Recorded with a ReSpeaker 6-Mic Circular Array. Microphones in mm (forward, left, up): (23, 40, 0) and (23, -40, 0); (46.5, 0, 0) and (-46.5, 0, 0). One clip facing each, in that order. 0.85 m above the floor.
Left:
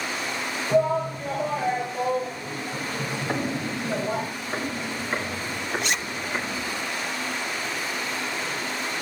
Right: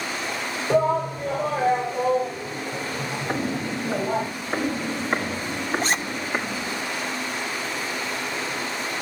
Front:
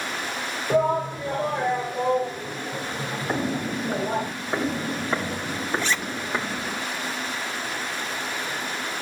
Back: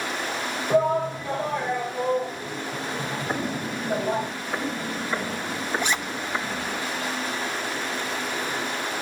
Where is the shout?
55° right, 3.5 m; by 4.3 s 45° right, 5.5 m.